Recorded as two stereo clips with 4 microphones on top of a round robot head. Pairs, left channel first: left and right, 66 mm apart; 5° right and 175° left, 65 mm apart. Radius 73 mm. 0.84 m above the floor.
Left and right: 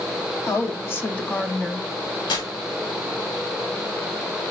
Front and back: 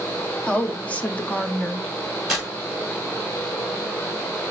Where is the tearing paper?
85° left, 2.5 m.